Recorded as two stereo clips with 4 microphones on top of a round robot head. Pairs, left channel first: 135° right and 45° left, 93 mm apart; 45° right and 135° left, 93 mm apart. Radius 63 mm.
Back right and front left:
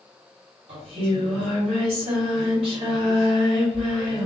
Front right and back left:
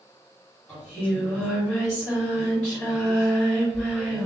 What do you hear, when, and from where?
0.7 s singing: 35° left, 1.7 m